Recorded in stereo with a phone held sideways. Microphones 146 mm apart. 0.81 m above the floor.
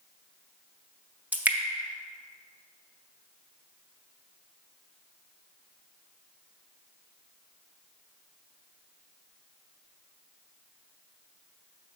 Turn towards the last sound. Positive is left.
turn(degrees=-10)  # may be behind; listen again after turning